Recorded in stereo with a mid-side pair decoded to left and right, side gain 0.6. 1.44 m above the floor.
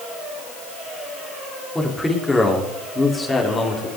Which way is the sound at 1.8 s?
10° left.